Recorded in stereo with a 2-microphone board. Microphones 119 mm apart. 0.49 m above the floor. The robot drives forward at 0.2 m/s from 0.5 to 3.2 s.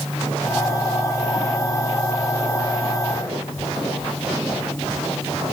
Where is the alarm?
No alarm in this recording.